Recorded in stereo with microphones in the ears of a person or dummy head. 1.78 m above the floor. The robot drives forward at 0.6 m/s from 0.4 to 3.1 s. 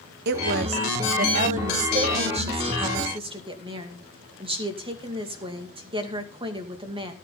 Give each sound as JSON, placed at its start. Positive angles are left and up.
{"t": 0.2, "sound": "a woman speaking", "side_deg": -60, "distance_m": 1.1}